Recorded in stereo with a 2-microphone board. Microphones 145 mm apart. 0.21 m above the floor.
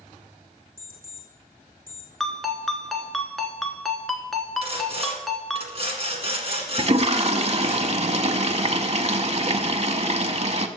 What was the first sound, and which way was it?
An alarm clock, 80° right.